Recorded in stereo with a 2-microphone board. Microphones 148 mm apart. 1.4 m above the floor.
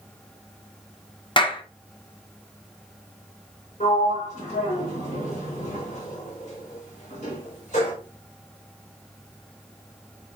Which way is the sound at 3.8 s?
55° left (ahead or behind).